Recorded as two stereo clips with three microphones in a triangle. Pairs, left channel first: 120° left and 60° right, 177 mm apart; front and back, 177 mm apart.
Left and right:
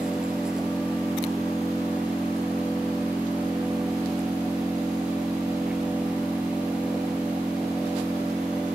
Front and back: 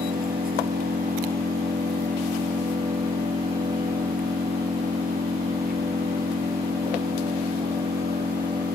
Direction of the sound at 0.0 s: 145° right.